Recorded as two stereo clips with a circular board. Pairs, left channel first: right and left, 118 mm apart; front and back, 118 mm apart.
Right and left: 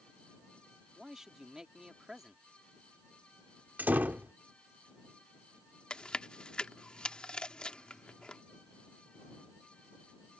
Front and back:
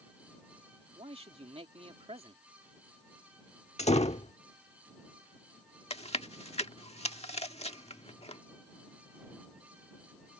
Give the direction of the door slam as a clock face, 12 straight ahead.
11 o'clock.